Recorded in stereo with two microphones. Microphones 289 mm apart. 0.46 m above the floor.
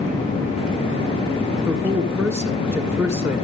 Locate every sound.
1.7 s a man speaking: 10° right (ahead or behind), 1.6 m